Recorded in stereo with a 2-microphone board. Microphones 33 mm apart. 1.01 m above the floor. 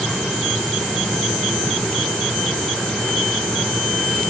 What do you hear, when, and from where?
Only background noise.